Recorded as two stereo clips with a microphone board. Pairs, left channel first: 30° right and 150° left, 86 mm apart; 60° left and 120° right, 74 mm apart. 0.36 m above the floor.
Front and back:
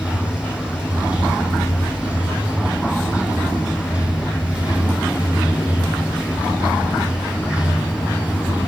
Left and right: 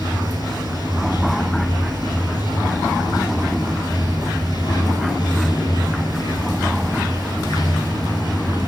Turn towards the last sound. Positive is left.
turn(degrees=75)